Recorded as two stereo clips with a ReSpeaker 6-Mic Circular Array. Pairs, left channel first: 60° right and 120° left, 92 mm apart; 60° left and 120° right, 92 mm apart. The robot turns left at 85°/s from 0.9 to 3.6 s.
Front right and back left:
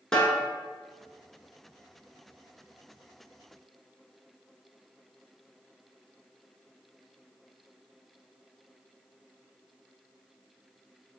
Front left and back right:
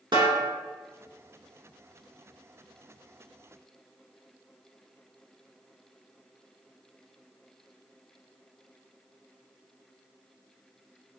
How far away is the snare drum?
About 1.0 m.